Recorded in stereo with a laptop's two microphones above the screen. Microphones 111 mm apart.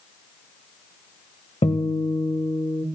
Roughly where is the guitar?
Left.